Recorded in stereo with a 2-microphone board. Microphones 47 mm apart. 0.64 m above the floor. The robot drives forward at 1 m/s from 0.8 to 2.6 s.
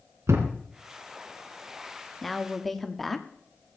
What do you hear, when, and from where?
0.3 s a thud: 90° right, 3 m
2.2 s a woman speaking: 5° left (ahead or behind), 1.2 m